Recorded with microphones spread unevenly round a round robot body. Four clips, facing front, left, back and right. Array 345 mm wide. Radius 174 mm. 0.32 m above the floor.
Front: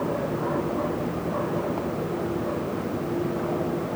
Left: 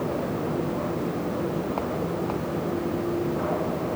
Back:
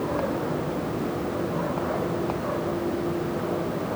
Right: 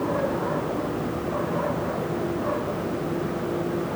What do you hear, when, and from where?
Only background noise.